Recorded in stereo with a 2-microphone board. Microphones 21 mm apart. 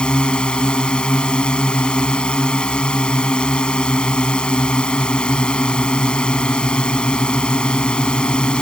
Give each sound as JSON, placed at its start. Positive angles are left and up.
{"t": 0.0, "sound": "a drone", "side_deg": 45}